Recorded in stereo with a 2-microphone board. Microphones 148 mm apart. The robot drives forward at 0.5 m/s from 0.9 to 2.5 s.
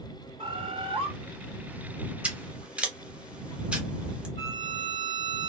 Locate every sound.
0.4 s a bird: 35° right (ahead or behind), 1.0 m; by 1.1 s 40° right (ahead or behind), 1.0 m
2.2 s scissors: 10° right (ahead or behind), 0.6 m; by 4.3 s 5° right (ahead or behind), 0.8 m
4.4 s a violin: 35° left (ahead or behind), 1.6 m